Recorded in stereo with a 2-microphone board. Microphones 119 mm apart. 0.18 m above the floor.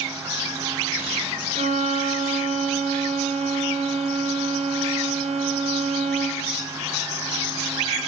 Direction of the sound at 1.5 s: 70° right (ahead or behind).